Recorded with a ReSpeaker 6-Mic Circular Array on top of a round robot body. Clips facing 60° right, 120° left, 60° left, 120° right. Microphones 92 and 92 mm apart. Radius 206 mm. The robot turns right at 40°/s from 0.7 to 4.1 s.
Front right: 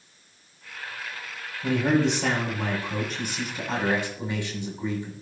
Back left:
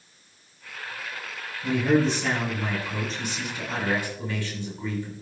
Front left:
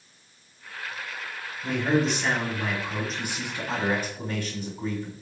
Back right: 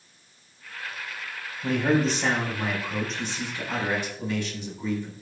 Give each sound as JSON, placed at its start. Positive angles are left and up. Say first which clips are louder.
{"t": 1.6, "sound": "a man speaking", "louder": "back left 1 dB, back right 1 dB", "azimuth_deg": -85, "distance_m": 7.5}